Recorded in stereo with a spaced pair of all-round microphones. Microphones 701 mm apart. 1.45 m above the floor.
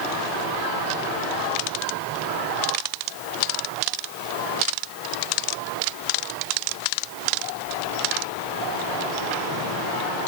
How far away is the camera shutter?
I don't hear a camera shutter.